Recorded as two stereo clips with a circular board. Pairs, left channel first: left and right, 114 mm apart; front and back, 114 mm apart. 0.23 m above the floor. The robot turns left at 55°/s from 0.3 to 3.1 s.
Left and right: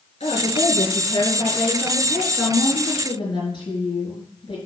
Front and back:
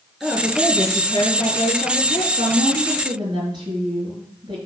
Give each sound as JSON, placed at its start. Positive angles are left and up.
{"t": 0.2, "sound": "a woman speaking", "azimuth_deg": 90, "distance_m": 3.5}
{"t": 2.4, "sound": "a woman speaking", "azimuth_deg": 175, "distance_m": 4.5}